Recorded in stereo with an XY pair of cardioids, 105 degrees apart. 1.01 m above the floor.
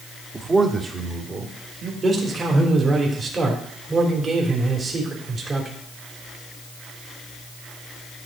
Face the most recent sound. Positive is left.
turn(degrees=-35)